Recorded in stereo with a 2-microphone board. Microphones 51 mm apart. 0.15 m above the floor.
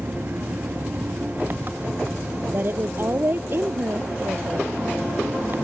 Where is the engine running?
40° right (ahead or behind).